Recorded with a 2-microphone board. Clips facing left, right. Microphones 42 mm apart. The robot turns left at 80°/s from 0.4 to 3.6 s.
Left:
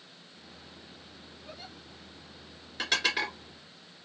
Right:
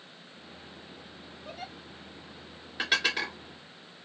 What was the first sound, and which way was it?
A giggle, 55° right (ahead or behind).